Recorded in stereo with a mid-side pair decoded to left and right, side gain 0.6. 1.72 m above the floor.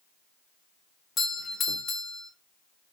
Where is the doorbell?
35° left, 0.7 m.